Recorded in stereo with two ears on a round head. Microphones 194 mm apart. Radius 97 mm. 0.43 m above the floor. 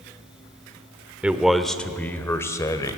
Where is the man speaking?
5° right (ahead or behind), 1.2 m; by 3.0 s 15° left (ahead or behind), 1.9 m.